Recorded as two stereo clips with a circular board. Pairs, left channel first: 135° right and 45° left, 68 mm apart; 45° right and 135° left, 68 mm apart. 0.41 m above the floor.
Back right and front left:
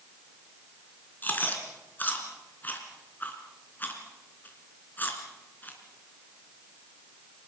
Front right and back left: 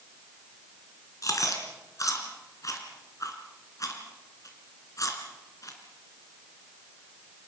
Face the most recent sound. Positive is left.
turn(degrees=-75)